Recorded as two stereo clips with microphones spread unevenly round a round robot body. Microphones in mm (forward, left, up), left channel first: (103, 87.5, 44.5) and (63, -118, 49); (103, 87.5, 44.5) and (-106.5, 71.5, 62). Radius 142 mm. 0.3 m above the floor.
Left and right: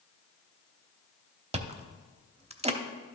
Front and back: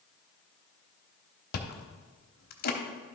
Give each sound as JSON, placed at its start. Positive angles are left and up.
{"t": 1.5, "sound": "chewing", "azimuth_deg": -40, "distance_m": 0.8}